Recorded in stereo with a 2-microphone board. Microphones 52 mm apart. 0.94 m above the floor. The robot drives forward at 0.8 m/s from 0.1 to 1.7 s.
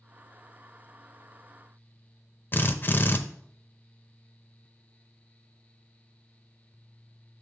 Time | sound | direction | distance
2.5 | a drill | 40° left (ahead or behind) | 0.6 m